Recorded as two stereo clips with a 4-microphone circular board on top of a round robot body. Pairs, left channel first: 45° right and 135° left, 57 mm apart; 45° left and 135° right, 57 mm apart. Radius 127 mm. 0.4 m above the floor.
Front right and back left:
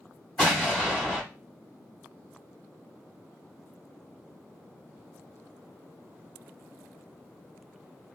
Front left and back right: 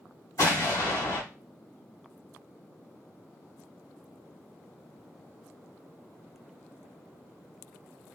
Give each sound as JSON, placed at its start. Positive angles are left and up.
{"t": 0.4, "sound": "an explosion", "azimuth_deg": 30, "distance_m": 3.5}